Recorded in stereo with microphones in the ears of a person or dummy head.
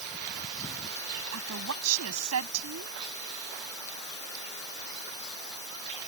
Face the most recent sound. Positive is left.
turn(degrees=-90)